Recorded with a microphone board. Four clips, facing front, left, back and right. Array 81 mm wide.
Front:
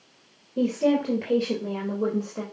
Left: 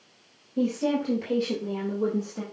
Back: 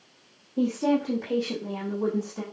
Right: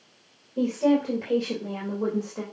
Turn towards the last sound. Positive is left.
turn(degrees=0)